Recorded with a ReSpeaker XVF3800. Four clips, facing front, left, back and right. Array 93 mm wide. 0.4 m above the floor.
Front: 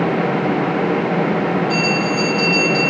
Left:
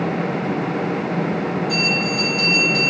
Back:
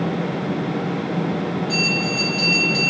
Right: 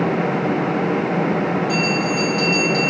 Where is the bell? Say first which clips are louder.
Right 2 dB, front 5 dB; 155° left, 3.5 m.